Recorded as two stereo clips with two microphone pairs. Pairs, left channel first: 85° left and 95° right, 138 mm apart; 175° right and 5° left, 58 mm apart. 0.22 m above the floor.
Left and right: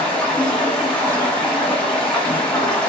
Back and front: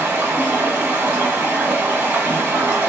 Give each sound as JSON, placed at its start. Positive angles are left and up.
{"t": 0.0, "sound": "running water", "azimuth_deg": 10, "distance_m": 0.9}